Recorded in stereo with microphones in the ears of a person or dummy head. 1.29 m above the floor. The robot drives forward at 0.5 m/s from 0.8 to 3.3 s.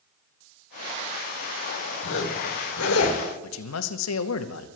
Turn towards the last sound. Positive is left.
turn(degrees=80)